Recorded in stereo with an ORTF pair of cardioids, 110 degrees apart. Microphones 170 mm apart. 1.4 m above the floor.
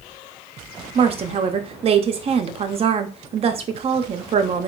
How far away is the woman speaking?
About 0.5 m.